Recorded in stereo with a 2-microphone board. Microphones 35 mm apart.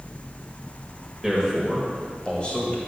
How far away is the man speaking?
About 1.3 m.